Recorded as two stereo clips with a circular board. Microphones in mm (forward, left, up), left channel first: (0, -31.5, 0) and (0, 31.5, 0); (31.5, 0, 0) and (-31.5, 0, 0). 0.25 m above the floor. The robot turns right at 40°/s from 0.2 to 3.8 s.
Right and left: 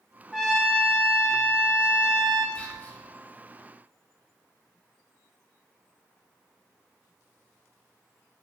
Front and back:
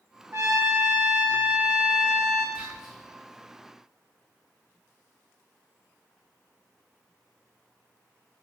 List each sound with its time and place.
0.3 s a trumpet: straight behind, 0.8 m; by 2.5 s 95° right, 0.8 m
2.5 s whispering: 130° right, 1.5 m; by 3.0 s 110° right, 1.5 m